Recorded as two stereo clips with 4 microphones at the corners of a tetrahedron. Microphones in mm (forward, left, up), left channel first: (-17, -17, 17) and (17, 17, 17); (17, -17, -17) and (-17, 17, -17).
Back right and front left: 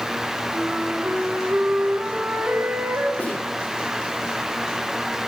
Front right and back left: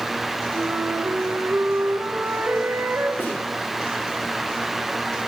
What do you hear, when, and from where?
0.5 s a flute: 95° left, 2 m
3.2 s a snare drum: 80° right, 8.5 m